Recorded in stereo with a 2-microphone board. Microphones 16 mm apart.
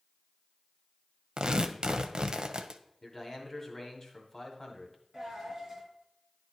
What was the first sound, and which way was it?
Tearing paper, 65° right (ahead or behind).